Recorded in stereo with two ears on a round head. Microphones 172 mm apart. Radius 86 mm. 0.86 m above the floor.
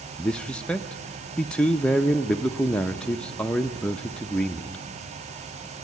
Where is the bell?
I don't hear a bell.